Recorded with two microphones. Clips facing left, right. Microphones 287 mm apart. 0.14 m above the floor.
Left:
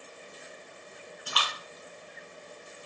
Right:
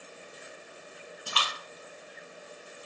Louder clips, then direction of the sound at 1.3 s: Even; 30° right (ahead or behind).